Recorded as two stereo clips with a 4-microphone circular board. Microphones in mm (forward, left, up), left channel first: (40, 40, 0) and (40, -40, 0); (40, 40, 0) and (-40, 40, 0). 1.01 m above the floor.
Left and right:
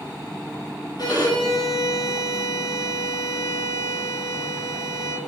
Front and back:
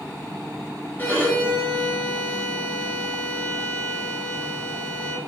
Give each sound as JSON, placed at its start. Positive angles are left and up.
{"t": 1.0, "sound": "a violin", "azimuth_deg": 60, "distance_m": 3.5}